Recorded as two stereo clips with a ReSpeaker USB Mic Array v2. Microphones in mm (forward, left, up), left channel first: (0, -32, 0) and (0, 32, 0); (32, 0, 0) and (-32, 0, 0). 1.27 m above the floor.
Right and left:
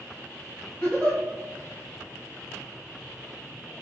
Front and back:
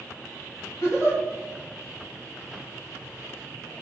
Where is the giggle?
40° right, 1.4 m.